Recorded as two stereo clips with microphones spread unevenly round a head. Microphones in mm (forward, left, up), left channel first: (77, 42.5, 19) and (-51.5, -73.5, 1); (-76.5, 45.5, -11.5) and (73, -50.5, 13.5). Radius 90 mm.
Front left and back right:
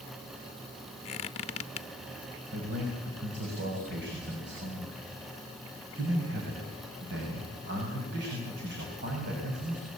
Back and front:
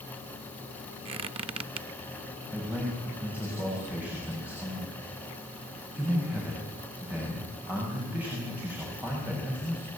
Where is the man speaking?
115° right, 6.5 m.